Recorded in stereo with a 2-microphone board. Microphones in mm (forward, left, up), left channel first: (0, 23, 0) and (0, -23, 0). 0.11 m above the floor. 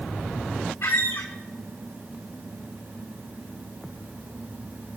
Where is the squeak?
85° left, 1.0 m.